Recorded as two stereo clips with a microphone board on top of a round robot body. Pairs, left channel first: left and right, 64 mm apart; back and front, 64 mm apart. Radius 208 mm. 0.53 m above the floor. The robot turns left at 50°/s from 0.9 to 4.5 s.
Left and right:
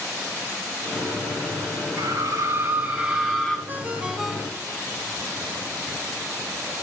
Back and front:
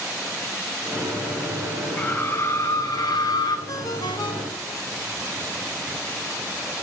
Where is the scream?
115° right, 4.5 m; by 3.6 s 165° left, 4.5 m.